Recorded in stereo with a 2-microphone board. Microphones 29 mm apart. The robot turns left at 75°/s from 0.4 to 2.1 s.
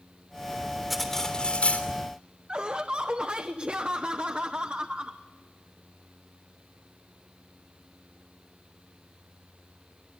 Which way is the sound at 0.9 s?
170° right.